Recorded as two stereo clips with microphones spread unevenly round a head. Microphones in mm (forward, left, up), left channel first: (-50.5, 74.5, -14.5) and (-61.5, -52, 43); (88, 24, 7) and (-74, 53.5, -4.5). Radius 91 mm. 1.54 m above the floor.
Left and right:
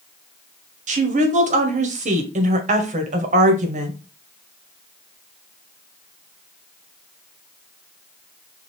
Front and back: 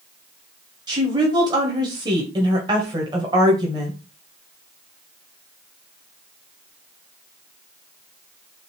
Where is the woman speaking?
120° right, 1.3 m.